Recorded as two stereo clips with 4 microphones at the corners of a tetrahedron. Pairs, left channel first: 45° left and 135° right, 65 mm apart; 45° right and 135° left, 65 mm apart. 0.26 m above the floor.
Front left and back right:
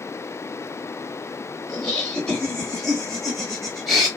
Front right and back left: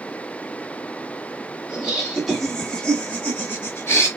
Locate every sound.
1.7 s laughter: 105° left, 1.2 m; by 4.1 s 45° right, 1.5 m